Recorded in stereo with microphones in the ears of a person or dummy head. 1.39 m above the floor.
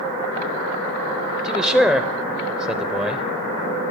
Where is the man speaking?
5° left (ahead or behind), 0.5 m.